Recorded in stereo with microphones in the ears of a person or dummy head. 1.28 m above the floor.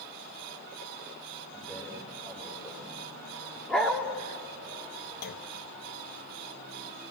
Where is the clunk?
50° left (ahead or behind), 0.9 m.